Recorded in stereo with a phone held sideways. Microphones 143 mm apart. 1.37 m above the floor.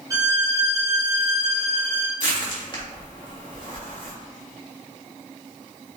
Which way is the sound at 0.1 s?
20° right (ahead or behind).